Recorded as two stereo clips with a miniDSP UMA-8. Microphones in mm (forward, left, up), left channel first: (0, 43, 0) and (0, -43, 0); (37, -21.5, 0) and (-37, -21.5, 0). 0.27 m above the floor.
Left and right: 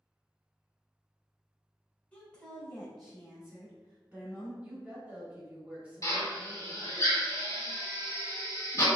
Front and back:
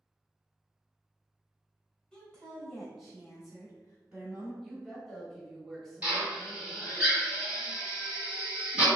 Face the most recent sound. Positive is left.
turn(degrees=115)